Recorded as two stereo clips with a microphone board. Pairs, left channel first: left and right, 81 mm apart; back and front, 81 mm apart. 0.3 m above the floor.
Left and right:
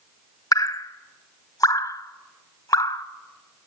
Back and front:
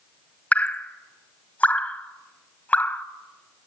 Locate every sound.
0.5 s dripping: 115° left, 1.0 m